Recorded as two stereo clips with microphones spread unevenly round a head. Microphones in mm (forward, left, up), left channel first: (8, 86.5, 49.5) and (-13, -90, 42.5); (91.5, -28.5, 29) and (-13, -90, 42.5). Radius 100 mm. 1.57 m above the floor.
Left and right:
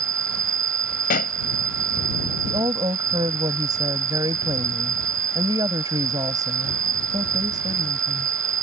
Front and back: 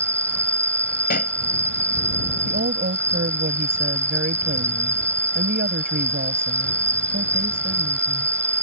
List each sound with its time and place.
0.0 s an insect: 50° right
1.1 s a pop: 35° left
2.5 s a woman speaking: 170° right